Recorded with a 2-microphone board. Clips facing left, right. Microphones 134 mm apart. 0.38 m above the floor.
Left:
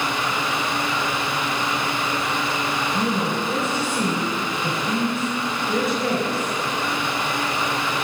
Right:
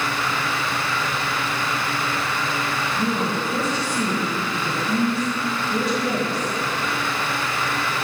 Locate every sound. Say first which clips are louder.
2.9 s a woman speaking: right 1 dB; 55° left (ahead or behind), 4 m